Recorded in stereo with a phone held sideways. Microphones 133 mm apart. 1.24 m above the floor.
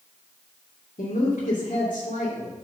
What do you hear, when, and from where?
1.0 s a woman speaking: 80° left, 2.5 m